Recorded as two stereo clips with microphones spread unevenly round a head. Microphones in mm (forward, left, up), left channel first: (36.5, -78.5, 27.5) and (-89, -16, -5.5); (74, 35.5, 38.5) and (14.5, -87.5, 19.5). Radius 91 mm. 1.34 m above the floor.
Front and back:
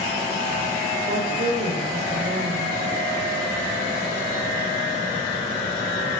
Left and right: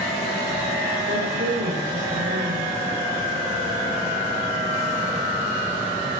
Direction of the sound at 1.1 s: 155° right.